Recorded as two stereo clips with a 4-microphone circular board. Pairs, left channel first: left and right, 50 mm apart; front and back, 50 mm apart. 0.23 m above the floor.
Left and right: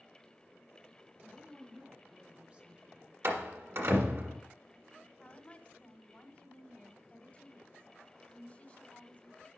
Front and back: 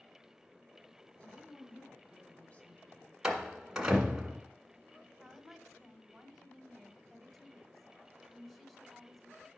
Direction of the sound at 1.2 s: 45° right.